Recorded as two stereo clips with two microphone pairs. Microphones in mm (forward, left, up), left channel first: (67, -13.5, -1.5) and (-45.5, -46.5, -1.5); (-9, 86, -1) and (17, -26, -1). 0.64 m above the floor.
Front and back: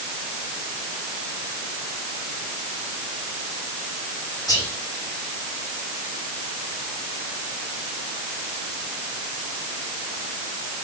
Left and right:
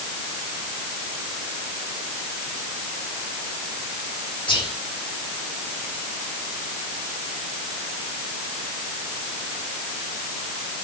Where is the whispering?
70° left, 2 m.